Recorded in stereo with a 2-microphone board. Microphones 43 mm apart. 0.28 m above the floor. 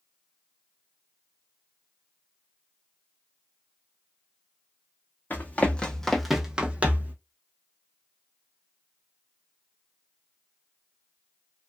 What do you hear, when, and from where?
5.3 s running footsteps: 40° left (ahead or behind), 0.9 m; by 7.2 s 40° right (ahead or behind), 0.9 m